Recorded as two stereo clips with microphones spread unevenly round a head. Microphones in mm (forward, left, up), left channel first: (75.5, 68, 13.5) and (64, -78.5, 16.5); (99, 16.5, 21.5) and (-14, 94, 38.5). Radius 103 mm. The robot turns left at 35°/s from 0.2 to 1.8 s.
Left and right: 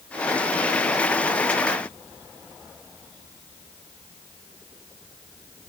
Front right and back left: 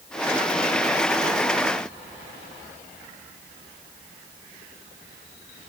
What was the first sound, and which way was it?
Only background noise.